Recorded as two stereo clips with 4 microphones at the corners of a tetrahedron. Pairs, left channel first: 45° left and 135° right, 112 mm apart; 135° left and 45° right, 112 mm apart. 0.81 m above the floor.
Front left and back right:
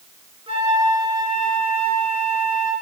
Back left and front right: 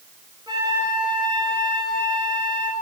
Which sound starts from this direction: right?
A flute, at 0.5 s.